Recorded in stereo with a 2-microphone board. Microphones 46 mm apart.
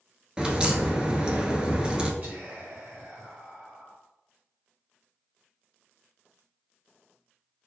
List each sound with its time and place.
0.4 s a crack: 20° right (ahead or behind), 0.9 m
2.2 s whispering: 40° right (ahead or behind), 2 m